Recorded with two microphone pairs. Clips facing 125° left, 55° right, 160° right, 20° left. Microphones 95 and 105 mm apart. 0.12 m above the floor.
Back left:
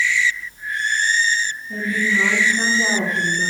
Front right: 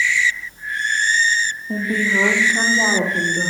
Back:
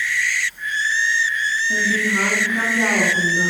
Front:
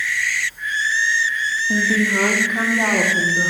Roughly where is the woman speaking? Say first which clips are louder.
Front right 1 dB, front 4 dB; ahead right.